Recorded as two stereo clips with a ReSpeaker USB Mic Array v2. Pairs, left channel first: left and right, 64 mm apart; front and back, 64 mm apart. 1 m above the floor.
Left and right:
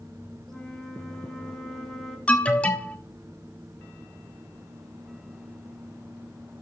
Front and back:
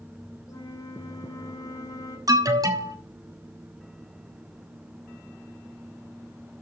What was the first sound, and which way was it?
A flute, 5° left.